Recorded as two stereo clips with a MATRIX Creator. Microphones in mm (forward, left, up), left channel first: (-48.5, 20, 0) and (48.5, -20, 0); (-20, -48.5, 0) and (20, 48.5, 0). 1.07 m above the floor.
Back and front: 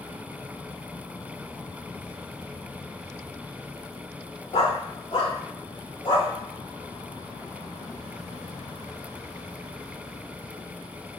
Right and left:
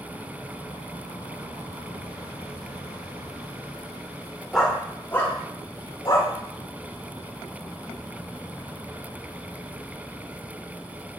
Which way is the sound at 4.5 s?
160° left.